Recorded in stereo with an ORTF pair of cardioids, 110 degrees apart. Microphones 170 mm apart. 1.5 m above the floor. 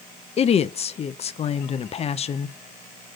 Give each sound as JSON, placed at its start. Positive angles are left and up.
{"t": 0.4, "sound": "a woman speaking", "azimuth_deg": 40, "distance_m": 0.7}